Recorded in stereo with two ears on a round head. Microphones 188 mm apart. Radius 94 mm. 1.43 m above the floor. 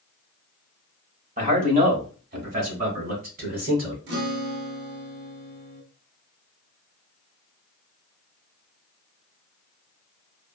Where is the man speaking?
40° right (ahead or behind), 1.3 m; by 4.0 s 45° right (ahead or behind), 3 m.